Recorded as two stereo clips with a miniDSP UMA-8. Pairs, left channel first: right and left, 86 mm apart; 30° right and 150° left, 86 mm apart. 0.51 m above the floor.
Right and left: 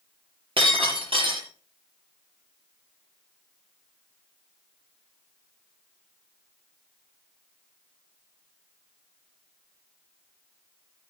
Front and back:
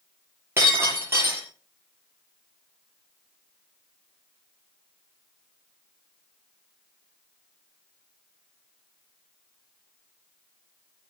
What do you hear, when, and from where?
0.6 s breaking glass: 90° left, 8 m